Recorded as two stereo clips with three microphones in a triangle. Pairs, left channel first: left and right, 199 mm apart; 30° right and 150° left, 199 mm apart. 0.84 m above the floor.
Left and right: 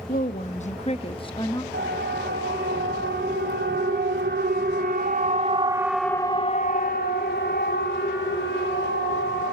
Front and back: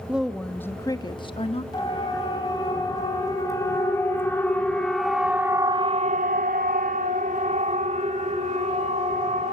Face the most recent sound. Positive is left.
turn(degrees=95)